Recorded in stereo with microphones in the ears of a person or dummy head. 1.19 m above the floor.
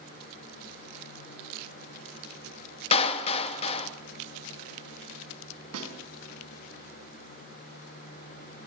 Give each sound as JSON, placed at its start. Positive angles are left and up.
{"t": 2.9, "sound": "a clap", "side_deg": 40, "distance_m": 1.9}
{"t": 5.7, "sound": "a snare drum", "side_deg": -80, "distance_m": 6.0}